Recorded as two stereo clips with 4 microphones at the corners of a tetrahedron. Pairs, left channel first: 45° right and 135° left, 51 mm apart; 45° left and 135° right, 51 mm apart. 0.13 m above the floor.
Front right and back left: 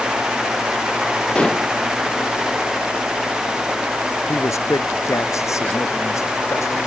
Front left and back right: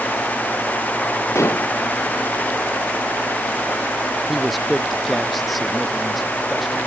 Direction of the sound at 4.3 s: 45° right.